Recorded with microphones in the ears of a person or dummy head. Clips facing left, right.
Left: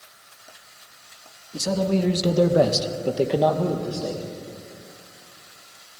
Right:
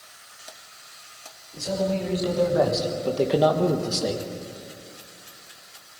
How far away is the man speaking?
About 2.5 m.